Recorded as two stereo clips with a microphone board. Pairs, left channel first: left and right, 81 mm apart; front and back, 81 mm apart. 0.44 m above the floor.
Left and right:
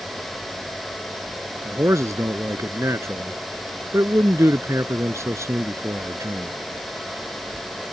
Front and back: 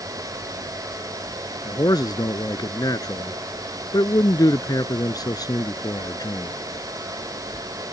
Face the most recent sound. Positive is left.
turn(degrees=-35)